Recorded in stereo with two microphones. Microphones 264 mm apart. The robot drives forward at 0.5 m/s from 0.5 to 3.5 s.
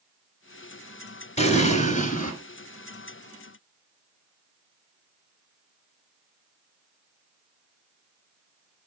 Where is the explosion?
25° left (ahead or behind), 2 m; by 2.3 s 30° left (ahead or behind), 1.7 m.